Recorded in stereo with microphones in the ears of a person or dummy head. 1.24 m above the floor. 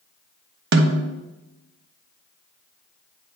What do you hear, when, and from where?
0.7 s a snare drum: 65° right (ahead or behind), 0.9 m